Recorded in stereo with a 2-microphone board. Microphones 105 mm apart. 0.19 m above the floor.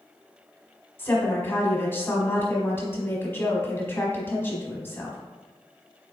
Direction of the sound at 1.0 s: 20° left (ahead or behind).